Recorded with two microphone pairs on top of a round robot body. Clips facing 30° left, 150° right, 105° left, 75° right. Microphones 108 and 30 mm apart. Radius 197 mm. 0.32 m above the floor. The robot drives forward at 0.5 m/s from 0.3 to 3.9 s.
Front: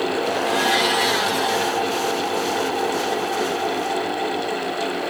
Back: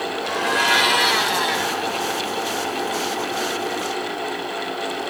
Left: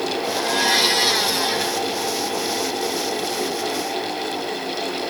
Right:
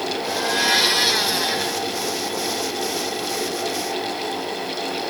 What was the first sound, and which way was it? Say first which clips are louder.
A blender: front 1 dB, even; 135° right.